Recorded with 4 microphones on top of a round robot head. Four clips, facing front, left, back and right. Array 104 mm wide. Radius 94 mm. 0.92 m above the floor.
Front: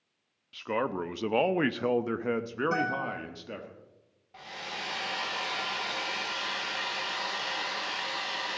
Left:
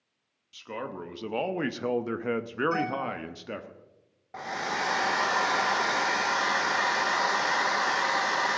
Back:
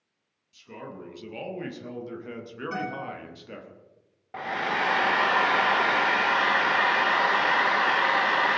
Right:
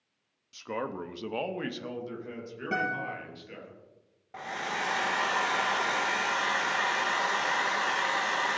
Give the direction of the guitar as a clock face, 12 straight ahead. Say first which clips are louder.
Left 2 dB, back 2 dB; 2 o'clock.